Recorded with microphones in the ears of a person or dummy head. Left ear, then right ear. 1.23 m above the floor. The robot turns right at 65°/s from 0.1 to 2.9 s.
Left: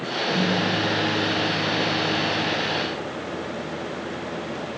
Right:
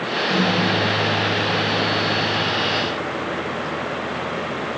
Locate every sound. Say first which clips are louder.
0.3 s a microwave: right 3 dB; 35° right, 4 m; by 2.8 s 125° left, 4 m